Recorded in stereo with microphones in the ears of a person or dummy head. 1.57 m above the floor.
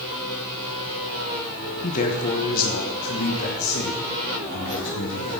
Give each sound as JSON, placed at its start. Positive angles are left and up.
{"t": 1.8, "sound": "a man speaking", "side_deg": 40, "distance_m": 1.7}